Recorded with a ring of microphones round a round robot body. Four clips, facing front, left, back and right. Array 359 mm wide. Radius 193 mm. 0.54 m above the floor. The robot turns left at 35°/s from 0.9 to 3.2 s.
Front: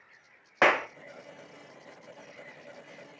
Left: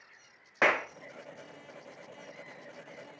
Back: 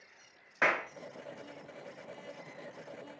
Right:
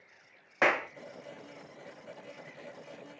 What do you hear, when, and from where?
0.6 s a clap: straight ahead, 0.6 m